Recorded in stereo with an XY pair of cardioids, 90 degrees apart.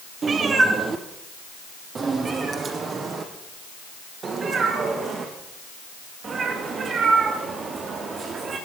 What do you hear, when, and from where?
0.2 s a cat meowing: 50° right, 4 m; by 8.6 s 55° right, 13.5 m